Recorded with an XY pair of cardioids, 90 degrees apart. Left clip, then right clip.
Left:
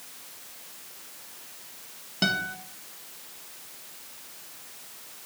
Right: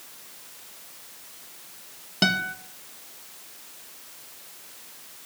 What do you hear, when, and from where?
2.2 s a guitar: 40° right, 1.8 m